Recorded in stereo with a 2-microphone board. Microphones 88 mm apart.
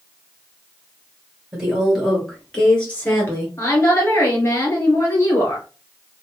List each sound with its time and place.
1.5 s a woman speaking: 10° right (ahead or behind), 2 m; by 3.5 s 25° left (ahead or behind), 1.9 m
3.6 s a woman speaking: 30° left (ahead or behind), 1.7 m